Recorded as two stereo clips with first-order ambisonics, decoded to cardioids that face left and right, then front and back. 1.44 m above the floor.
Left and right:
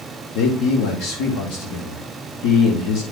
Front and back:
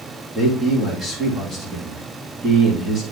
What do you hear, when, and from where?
0.3 s a man speaking: 90° left, 3 m